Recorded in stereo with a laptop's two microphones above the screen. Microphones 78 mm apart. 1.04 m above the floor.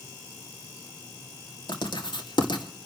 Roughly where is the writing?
Left.